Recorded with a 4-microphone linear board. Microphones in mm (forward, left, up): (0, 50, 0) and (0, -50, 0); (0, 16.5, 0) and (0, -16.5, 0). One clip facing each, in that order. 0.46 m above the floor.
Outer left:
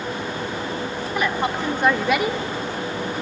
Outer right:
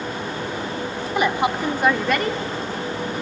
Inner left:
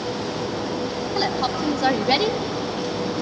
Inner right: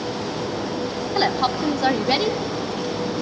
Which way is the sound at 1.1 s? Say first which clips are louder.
Outer right 3 dB, inner right 3 dB; 25° right (ahead or behind).